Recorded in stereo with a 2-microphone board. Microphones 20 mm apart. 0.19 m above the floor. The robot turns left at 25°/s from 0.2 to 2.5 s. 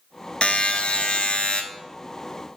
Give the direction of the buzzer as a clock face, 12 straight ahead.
8 o'clock.